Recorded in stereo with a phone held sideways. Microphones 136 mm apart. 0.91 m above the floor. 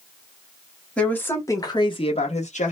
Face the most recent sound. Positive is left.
turn(degrees=65)  # may be behind; listen again after turning